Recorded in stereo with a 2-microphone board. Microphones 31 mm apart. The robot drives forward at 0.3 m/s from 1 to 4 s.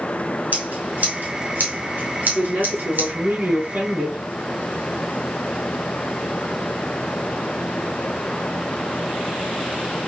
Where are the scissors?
65° right (ahead or behind), 1.7 m; by 3.1 s 80° right, 1.6 m.